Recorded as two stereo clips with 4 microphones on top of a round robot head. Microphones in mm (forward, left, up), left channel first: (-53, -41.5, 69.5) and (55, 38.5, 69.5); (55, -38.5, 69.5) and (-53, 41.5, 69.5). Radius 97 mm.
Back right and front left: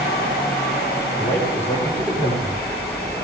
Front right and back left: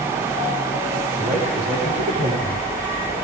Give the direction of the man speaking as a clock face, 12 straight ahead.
7 o'clock.